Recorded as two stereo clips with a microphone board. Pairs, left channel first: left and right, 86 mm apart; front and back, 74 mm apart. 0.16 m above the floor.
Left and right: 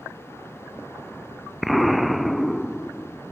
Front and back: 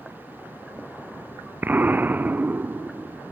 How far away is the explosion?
About 0.5 m.